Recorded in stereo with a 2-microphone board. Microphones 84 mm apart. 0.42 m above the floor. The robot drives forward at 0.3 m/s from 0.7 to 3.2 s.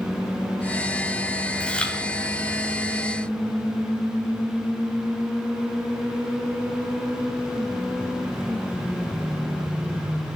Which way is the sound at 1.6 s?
15° left (ahead or behind).